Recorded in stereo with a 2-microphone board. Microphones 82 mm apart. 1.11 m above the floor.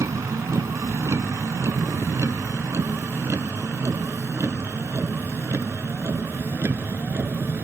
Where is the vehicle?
40° right (ahead or behind); by 7.6 s 30° right (ahead or behind).